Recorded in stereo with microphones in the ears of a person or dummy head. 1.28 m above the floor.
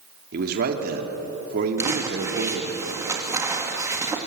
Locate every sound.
0.3 s a man speaking: 55° right (ahead or behind), 3.5 m
1.8 s crumpling: 15° right (ahead or behind), 2.5 m